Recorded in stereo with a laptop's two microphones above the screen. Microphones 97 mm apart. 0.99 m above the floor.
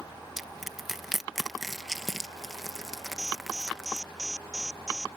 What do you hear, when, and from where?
0.4 s crushing: 5° right (ahead or behind)
3.2 s an alarm: 5° left (ahead or behind)